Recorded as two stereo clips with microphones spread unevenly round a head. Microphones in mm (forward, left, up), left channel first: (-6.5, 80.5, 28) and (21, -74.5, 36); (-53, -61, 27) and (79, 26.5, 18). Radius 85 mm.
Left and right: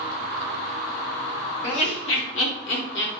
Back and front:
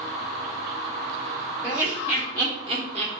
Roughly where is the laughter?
Behind left.